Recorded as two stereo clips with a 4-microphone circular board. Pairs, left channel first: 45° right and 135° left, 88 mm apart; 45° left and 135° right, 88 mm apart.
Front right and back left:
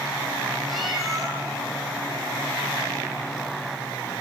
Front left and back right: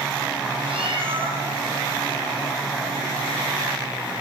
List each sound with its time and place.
0.7 s a cat meowing: 135° right, 7 m